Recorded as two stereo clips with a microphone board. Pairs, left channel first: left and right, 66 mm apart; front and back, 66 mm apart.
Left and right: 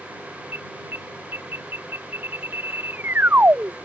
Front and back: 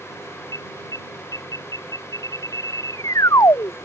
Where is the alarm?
30° right.